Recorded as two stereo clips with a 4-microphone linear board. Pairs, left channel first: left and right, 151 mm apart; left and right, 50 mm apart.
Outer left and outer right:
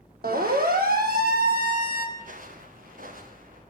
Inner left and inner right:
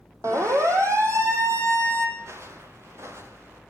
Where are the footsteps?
60° right (ahead or behind), 5.5 m; by 3.6 s 65° right (ahead or behind), 6 m.